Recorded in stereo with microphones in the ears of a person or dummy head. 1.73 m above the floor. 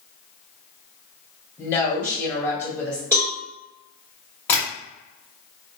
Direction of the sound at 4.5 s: 10° left (ahead or behind).